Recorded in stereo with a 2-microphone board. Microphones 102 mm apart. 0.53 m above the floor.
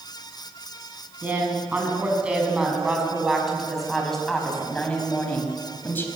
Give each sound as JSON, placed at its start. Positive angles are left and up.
{"t": 1.2, "sound": "a woman speaking", "side_deg": -15, "distance_m": 6.0}